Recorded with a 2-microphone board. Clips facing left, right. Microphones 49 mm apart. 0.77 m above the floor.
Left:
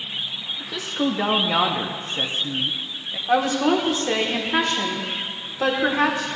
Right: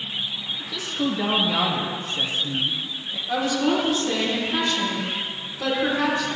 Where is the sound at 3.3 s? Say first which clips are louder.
Left 3 dB; 45° left (ahead or behind), 1.7 m.